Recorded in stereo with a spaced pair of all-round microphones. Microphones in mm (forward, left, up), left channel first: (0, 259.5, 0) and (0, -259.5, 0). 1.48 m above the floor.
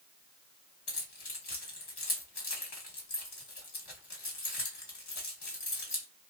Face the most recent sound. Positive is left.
turn(degrees=50)  # may be behind; listen again after turning